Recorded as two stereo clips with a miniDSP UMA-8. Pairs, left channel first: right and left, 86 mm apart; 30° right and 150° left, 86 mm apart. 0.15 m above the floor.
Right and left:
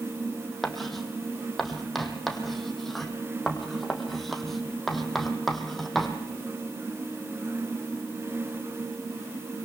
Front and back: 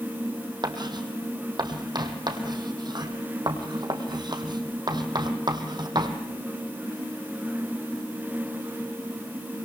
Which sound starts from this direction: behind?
Writing, at 0.6 s.